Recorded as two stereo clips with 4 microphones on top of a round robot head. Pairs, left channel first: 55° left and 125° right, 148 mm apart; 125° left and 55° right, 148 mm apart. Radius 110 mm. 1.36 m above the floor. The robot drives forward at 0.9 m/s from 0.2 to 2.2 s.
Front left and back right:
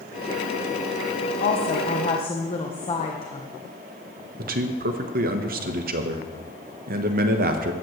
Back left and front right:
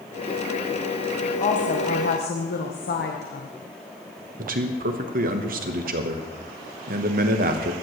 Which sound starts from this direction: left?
A woman speaking, at 1.4 s.